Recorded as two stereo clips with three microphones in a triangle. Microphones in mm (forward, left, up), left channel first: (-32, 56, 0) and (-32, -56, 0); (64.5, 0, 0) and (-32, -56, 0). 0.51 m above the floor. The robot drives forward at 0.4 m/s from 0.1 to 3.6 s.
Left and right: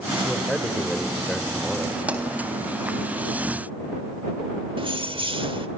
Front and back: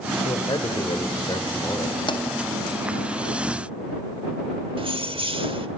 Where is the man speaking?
Straight ahead, 2.5 m.